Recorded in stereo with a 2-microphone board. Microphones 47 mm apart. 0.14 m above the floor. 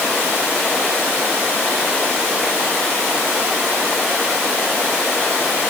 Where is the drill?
I don't hear a drill.